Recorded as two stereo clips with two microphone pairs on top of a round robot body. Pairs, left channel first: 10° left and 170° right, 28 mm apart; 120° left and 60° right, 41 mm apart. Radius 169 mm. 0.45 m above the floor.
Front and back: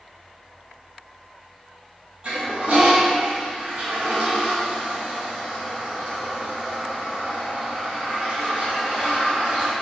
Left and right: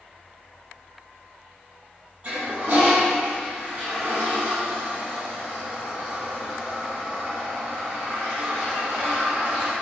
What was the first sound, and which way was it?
A toilet flushing, 115° right.